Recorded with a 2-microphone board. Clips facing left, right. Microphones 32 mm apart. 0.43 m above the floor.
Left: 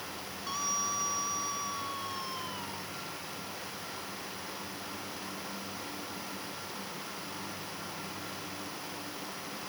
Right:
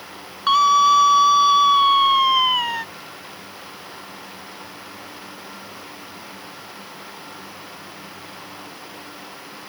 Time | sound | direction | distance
0.5 | a scream | 70° right (ahead or behind) | ?